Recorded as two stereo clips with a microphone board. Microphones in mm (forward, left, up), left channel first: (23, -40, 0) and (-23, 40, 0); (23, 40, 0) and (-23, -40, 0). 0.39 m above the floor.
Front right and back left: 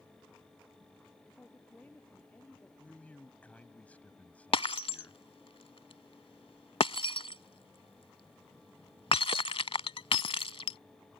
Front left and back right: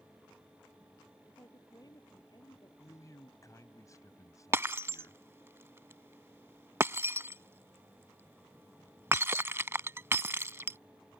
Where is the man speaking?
15° left.